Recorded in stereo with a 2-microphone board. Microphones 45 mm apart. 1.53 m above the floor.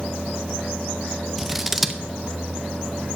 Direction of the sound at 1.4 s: 5° right (ahead or behind).